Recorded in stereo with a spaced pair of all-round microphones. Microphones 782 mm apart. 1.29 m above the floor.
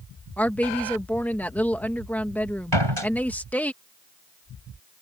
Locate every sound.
0.4 s a woman speaking: centre (ahead or behind)
2.7 s a door slam: 35° right (ahead or behind)